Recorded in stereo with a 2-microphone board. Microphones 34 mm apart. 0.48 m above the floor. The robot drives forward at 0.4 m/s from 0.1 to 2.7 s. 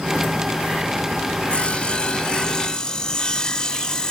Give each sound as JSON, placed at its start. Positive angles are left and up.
{"t": 1.5, "sound": "sawing", "side_deg": 40, "distance_m": 0.7}